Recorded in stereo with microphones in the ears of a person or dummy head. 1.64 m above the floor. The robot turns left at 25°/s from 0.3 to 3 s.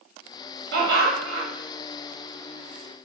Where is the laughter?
70° right (ahead or behind), 1.3 m; by 1.5 s 65° right (ahead or behind), 1.3 m.